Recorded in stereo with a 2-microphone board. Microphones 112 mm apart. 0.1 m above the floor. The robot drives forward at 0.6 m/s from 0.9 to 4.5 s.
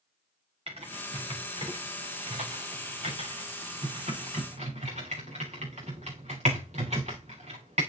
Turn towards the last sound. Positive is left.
turn(degrees=-85)